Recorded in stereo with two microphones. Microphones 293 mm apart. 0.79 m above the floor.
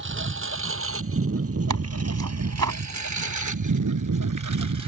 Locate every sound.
0.0 s a lawn mower: 40° right (ahead or behind); by 4.9 s 65° right (ahead or behind)
1.7 s tearing paper: 70° right (ahead or behind)